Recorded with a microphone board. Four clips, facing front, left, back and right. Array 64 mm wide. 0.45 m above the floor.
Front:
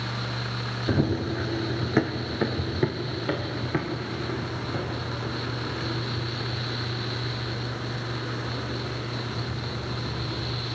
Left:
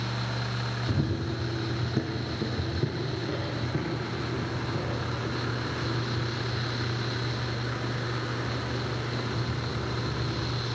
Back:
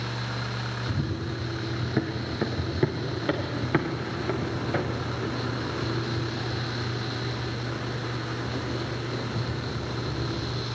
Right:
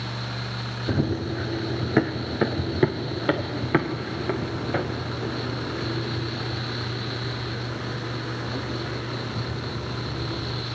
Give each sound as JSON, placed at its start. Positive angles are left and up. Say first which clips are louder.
{"t": 0.9, "sound": "running footsteps", "louder": "right 7 dB, front 10 dB", "azimuth_deg": -35, "distance_m": 1.7}